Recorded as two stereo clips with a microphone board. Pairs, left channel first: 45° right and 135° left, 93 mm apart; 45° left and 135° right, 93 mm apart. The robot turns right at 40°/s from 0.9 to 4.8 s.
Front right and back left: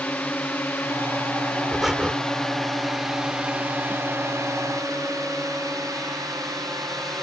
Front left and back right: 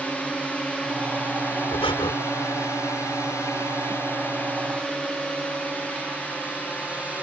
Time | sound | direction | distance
0.0 | a drone | 10° right | ?
1.7 | breathing | 45° left | ?